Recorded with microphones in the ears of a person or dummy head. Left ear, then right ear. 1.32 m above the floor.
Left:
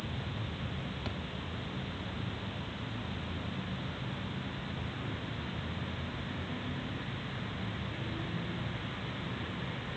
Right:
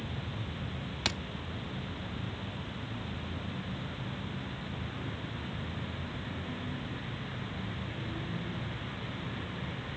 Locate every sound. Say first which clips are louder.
1.1 s a thud: right 12 dB; 45° right (ahead or behind)